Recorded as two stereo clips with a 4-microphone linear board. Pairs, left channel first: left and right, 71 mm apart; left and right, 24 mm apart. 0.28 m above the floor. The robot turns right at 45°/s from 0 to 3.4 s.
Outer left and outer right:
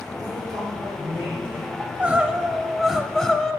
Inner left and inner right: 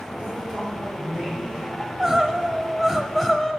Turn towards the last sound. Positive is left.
turn(degrees=5)  # may be behind; listen again after turning